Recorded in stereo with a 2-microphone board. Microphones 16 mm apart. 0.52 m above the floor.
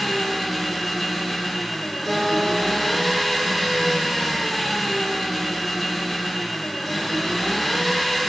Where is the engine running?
15° left (ahead or behind), 1.1 m.